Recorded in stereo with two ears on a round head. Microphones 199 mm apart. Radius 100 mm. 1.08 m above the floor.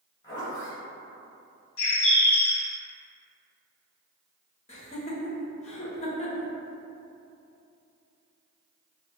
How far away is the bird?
About 1.6 m.